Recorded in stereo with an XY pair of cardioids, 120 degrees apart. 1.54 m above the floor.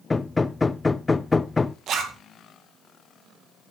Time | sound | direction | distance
0.1 | hammering | 15° left | 0.6 m
1.9 | a zipper | 60° right | 2.5 m